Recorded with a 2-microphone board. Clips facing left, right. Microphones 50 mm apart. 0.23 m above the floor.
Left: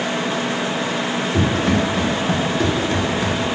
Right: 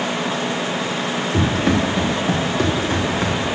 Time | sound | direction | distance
1.3 | running footsteps | 65° right (ahead or behind) | 4.5 m